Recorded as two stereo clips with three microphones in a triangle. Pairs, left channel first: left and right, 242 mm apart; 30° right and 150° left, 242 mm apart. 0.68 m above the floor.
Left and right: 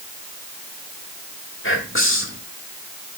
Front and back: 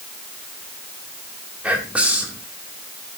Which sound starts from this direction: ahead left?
Whispering, at 1.6 s.